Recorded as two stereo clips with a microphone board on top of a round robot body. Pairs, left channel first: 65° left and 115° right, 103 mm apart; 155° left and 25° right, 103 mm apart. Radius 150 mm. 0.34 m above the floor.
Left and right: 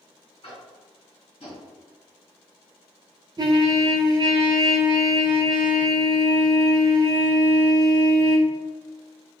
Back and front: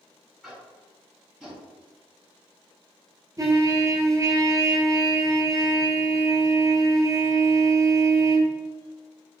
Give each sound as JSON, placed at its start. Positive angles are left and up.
{"t": 0.4, "sound": "tapping", "azimuth_deg": 60, "distance_m": 1.9}
{"t": 3.4, "sound": "a trumpet", "azimuth_deg": -70, "distance_m": 0.6}